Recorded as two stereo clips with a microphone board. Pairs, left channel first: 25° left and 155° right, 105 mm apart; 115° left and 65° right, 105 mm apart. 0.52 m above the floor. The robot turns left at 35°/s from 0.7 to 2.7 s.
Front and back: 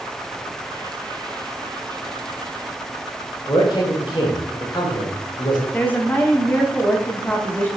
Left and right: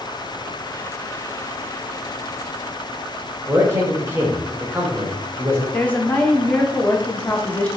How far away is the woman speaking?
About 0.8 m.